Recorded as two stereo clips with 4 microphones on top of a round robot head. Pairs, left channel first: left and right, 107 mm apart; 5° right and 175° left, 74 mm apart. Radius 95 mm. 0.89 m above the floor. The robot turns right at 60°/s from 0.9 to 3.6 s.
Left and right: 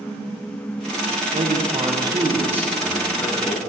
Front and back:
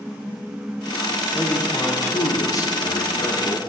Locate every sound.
1.3 s a man speaking: 95° right, 0.6 m; by 3.6 s 40° left, 0.6 m